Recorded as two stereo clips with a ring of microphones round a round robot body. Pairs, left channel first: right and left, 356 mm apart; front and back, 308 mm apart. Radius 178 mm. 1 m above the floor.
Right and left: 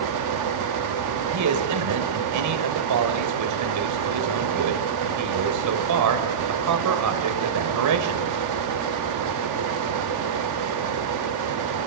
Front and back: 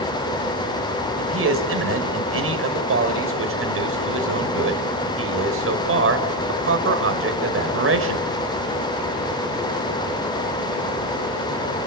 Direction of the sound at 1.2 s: 135° left.